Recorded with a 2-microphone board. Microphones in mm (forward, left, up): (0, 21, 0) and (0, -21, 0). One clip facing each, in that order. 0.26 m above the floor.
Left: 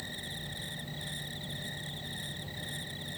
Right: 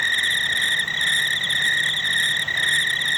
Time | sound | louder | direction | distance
0.0 | an insect | right 21 dB | 80° right | ?